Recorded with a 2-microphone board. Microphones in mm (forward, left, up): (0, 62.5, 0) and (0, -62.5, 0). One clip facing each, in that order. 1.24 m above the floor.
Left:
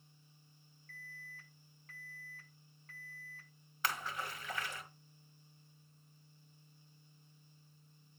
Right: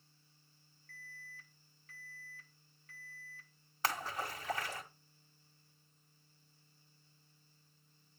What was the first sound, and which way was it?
An alarm, 40° left (ahead or behind).